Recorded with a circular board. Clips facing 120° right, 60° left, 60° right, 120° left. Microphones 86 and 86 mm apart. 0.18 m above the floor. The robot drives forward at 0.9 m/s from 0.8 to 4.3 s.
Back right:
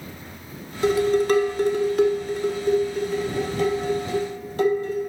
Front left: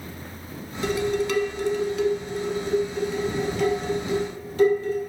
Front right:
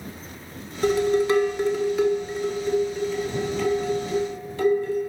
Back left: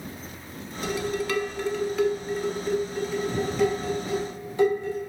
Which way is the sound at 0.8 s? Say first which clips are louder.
Back right 5 dB, front right 8 dB; 70° right.